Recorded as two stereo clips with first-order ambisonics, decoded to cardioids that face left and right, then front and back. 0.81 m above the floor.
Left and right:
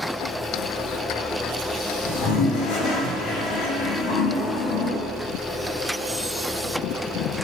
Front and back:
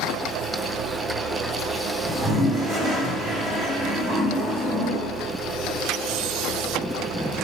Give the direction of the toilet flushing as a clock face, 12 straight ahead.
8 o'clock.